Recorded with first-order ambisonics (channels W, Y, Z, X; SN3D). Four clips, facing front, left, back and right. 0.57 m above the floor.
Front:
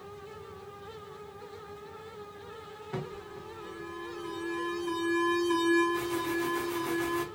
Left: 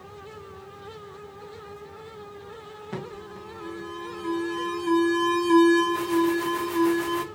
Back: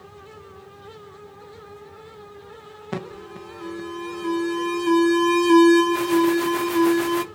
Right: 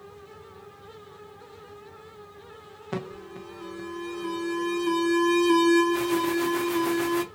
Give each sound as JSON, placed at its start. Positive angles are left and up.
{"t": 2.9, "sound": "an alarm", "azimuth_deg": -165, "distance_m": 0.6}